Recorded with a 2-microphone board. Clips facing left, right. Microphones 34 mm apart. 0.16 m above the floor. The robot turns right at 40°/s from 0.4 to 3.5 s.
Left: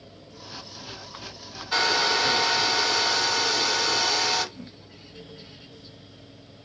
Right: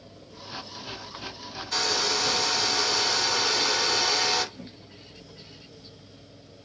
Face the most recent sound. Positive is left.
turn(degrees=-15)  # may be behind; listen again after turning